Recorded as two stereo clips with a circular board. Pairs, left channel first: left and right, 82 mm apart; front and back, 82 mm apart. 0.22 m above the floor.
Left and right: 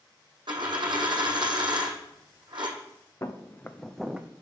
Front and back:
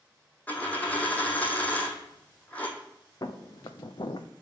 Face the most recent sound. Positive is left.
turn(degrees=-20)